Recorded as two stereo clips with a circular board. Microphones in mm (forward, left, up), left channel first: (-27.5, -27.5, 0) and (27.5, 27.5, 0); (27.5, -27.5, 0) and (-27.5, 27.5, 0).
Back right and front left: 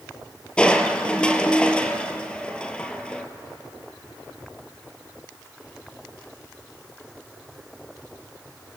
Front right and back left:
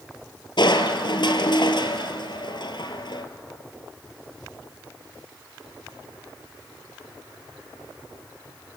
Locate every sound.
0.6 s crushing: 60° right, 1.8 m